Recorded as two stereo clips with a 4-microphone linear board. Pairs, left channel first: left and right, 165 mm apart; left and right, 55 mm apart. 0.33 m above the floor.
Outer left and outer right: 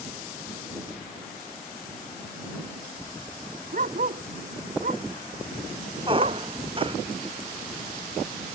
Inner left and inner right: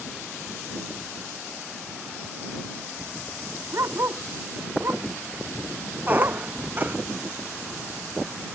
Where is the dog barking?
55° right (ahead or behind).